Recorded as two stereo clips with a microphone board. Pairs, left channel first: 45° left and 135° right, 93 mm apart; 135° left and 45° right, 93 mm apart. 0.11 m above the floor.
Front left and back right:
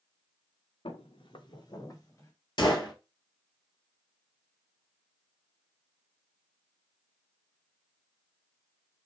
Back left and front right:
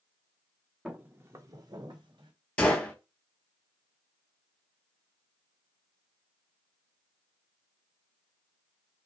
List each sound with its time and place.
0.8 s footsteps: 35° left, 1.0 m; by 2.3 s 20° right, 1.8 m
2.6 s a gunshot: 60° left, 0.9 m